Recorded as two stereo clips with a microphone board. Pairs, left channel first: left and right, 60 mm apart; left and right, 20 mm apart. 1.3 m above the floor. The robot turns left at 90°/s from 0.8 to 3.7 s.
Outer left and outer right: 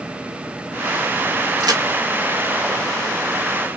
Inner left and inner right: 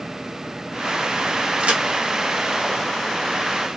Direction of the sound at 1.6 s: 80° right.